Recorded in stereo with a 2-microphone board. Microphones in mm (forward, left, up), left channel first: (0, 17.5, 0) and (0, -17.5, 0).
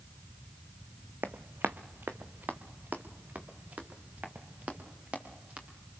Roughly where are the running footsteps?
Right.